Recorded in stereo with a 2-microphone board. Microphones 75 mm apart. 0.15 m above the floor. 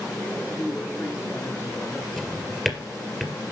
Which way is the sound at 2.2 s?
5° left (ahead or behind).